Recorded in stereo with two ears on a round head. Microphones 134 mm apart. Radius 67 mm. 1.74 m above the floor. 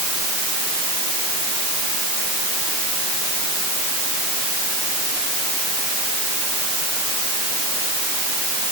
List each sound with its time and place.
Only background noise.